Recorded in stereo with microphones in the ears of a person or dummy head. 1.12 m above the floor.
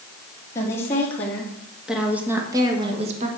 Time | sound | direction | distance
0.6 | a woman speaking | 15° left (ahead or behind) | 2.5 m